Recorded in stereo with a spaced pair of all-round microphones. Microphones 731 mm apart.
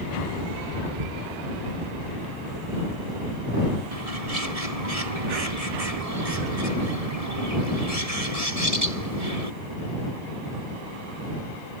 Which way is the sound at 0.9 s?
75° right (ahead or behind).